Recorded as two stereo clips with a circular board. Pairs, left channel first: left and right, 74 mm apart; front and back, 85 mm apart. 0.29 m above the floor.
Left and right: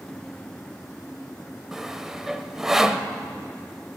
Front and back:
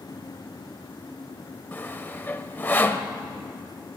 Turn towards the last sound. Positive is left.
turn(degrees=-15)